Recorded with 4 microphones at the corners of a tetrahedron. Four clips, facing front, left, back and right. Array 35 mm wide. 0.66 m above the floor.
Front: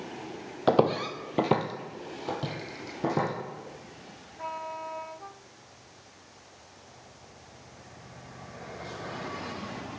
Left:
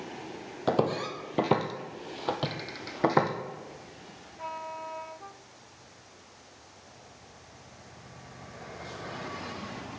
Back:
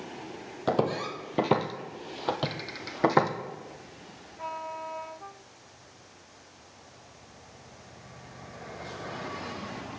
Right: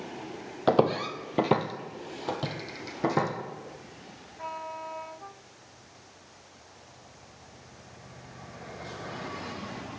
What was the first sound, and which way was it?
Footsteps, 40° right.